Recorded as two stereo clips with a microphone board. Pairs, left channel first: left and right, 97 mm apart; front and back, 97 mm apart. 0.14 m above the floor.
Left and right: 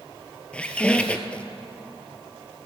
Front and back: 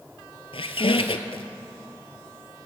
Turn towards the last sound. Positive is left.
turn(degrees=15)